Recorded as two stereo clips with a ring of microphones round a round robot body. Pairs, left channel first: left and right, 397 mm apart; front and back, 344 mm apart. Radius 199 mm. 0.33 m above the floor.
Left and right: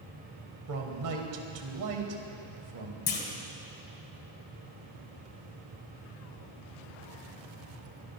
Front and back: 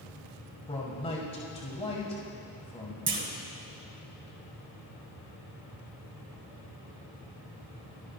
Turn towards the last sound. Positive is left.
turn(degrees=145)